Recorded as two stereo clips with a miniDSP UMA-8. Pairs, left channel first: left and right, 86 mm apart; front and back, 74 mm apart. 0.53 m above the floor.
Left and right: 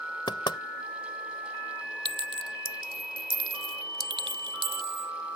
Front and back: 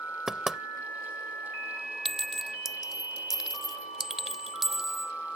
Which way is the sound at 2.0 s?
95° right.